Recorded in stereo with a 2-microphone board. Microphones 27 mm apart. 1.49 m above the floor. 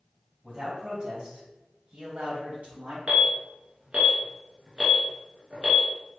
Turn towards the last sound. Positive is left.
turn(degrees=-50)  # may be behind; listen again after turning